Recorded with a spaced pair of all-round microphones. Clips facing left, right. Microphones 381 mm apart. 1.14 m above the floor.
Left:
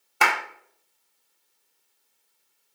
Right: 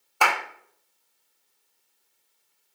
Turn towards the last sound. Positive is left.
turn(degrees=35)  # may be behind; listen again after turning